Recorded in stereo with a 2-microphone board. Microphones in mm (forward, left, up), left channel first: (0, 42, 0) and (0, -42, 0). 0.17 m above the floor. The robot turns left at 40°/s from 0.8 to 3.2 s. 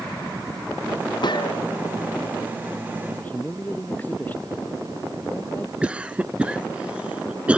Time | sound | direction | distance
1.2 | a gunshot | 60° left (ahead or behind) | ?
3.1 | a man speaking | 25° left (ahead or behind) | ?
5.8 | a cough | 15° right (ahead or behind) | ?